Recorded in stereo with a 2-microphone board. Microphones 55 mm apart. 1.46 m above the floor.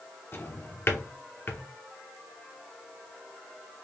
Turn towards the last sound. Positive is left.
turn(degrees=45)  # may be behind; listen again after turning